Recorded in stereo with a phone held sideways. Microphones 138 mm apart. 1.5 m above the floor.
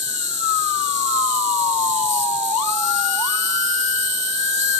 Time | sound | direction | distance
0.0 | an insect | 55° right (ahead or behind) | ?